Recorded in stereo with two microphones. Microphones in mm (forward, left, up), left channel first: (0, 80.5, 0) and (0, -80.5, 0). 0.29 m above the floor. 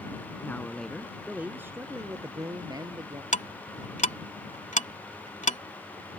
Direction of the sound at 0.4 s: 15° left (ahead or behind).